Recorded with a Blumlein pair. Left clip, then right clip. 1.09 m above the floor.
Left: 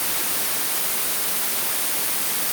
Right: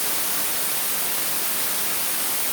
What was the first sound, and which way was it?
Only background noise.